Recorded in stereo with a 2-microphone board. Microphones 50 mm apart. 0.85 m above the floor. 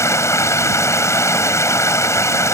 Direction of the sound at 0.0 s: 80° left.